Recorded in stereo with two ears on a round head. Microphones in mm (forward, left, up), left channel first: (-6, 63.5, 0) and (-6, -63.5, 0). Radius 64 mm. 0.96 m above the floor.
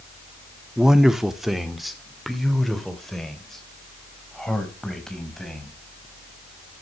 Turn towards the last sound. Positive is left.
turn(degrees=5)  # may be behind; listen again after turning